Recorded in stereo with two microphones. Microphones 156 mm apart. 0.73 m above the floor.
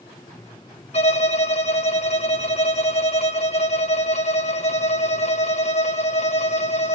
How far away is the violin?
About 1.0 m.